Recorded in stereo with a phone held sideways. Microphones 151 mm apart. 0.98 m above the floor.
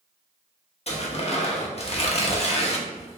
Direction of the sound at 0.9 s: 45° left (ahead or behind).